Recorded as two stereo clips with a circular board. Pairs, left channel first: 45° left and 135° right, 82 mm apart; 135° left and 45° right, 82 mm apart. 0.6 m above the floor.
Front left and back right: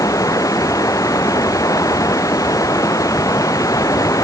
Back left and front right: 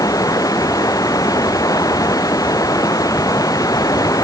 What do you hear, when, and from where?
0.0 s running water: 90° left